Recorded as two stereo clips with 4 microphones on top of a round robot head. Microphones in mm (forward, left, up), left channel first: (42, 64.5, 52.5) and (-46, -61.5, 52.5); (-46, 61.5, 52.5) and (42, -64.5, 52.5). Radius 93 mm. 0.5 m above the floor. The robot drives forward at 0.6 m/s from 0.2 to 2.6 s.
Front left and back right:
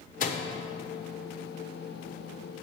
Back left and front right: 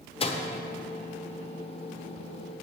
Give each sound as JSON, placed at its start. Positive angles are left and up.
{"t": 0.2, "sound": "a microwave", "azimuth_deg": 75, "distance_m": 1.1}